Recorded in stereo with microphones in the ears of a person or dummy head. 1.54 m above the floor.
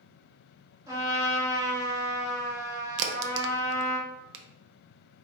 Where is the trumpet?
15° right (ahead or behind), 2.5 m.